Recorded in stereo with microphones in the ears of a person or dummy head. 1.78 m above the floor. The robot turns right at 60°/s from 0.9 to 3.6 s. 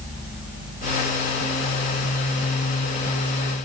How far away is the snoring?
I don't hear snoring.